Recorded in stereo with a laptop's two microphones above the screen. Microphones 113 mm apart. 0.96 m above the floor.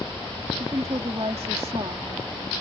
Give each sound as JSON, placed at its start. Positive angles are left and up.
{"t": 0.6, "sound": "a woman speaking", "side_deg": -70}